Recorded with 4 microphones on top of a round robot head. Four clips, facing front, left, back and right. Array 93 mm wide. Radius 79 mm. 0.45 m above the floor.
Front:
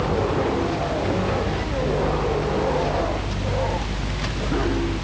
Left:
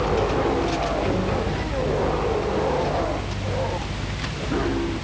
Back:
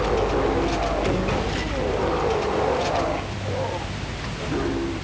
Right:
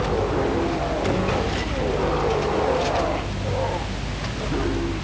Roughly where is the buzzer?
I don't hear a buzzer.